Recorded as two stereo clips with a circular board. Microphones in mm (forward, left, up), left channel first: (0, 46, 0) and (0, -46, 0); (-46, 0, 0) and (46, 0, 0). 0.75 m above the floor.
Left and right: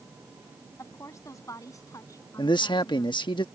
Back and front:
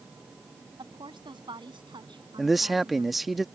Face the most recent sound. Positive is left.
turn(degrees=90)